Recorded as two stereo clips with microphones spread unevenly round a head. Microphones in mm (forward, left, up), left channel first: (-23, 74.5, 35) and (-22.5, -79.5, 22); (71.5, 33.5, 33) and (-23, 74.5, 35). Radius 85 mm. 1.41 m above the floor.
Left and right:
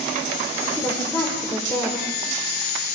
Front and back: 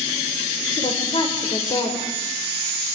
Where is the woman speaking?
15° left, 4.5 m.